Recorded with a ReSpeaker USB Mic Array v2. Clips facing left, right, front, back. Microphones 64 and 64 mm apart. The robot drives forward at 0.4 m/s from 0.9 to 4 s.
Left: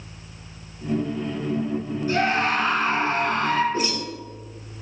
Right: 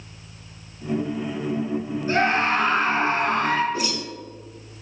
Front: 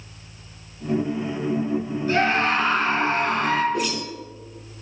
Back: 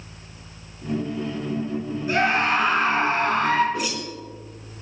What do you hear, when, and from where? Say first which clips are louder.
2.1 s a scream: right 1 dB, even; 110° right, 1.5 m; by 3.6 s 140° right, 1.7 m
3.7 s a whoosh: left 2 dB, front 2 dB; 90° left, 0.7 m; by 4.8 s 105° left, 0.7 m